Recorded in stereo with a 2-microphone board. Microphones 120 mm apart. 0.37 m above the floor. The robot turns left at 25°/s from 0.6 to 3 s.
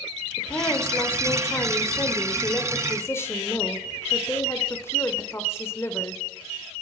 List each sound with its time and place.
0.4 s a woman speaking: 20° left (ahead or behind), 1.2 m